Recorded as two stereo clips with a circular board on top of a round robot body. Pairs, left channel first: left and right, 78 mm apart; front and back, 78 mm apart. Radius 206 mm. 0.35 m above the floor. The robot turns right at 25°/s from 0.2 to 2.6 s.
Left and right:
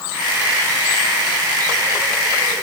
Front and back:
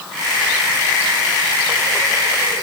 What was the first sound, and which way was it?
Only background noise.